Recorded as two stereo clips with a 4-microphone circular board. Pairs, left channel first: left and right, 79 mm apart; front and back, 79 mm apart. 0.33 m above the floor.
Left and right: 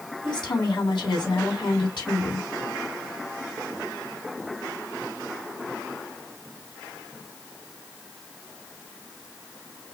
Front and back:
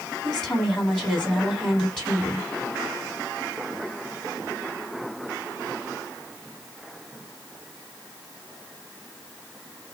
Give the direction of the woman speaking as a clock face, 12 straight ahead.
9 o'clock.